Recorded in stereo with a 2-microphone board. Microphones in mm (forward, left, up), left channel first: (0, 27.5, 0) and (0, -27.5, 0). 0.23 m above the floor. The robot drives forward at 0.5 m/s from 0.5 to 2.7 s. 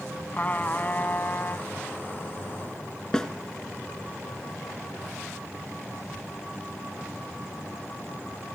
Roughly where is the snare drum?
Centre.